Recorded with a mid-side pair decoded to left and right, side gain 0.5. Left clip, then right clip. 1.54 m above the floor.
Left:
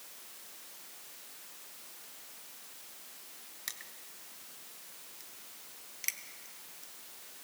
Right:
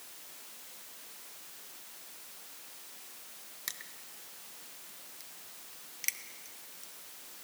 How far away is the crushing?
About 1.4 m.